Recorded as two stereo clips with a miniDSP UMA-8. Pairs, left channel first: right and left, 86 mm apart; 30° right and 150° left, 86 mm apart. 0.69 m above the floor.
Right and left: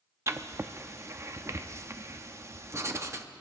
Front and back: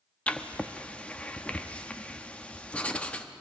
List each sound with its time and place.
0.3 s writing: 45° left, 0.6 m